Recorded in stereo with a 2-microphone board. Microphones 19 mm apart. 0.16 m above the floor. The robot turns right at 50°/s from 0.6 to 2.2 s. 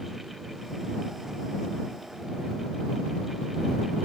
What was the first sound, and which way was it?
Only background noise.